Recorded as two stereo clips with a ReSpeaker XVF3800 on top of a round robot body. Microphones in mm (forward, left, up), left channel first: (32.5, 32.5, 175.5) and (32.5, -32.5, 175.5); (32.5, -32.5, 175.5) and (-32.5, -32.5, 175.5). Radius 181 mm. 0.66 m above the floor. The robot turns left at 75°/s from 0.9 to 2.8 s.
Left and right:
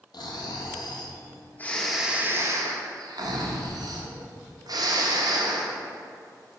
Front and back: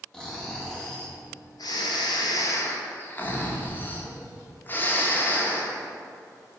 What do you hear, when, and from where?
0.1 s snoring: 80° left, 0.9 m; by 5.8 s 65° right, 0.9 m